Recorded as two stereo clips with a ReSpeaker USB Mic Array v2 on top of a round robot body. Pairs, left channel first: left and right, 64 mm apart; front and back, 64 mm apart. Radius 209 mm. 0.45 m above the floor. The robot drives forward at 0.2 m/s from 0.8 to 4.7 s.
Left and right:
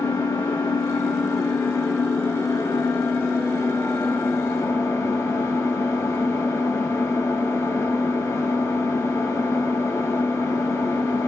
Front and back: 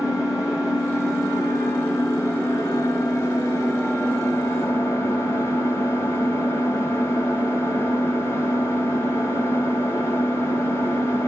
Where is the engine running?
35° left, 3 m; by 11.3 s 45° left, 2.5 m.